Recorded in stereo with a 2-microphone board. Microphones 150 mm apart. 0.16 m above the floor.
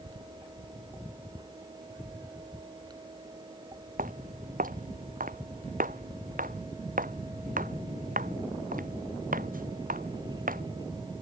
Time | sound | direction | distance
4.0 | footsteps | 70° right (ahead or behind) | ?